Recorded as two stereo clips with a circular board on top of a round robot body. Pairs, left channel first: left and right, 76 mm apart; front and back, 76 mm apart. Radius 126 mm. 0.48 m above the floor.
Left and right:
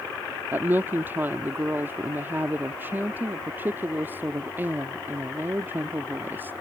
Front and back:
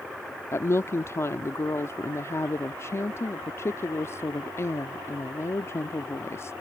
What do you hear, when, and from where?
0.5 s a woman speaking: 35° right